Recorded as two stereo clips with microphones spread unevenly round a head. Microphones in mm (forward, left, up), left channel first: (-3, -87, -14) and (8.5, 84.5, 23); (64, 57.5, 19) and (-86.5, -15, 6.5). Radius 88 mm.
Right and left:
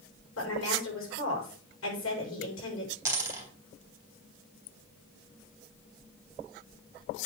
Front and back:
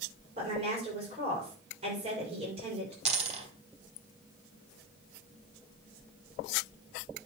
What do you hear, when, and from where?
0.4 s a woman speaking: 95° right, 6 m
3.0 s a dropped coin: 155° left, 3.5 m